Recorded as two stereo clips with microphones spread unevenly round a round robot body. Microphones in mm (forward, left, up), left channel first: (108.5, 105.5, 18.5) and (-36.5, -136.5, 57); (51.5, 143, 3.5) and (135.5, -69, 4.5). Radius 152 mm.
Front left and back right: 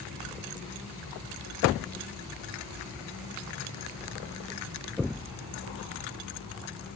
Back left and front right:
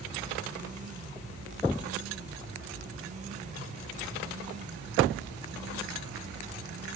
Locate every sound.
Only background noise.